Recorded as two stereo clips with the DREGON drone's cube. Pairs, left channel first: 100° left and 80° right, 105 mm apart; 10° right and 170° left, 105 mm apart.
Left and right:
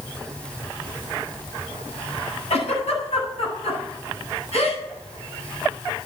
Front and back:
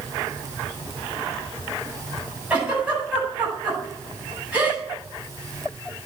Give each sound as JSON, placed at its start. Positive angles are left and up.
{"t": 2.5, "sound": "a giggle", "azimuth_deg": 90, "distance_m": 9.5}